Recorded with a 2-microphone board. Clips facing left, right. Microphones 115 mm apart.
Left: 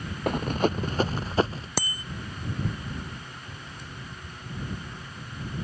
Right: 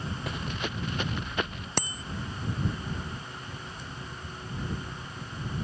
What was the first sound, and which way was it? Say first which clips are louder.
Running footsteps: left 13 dB; 50° left (ahead or behind).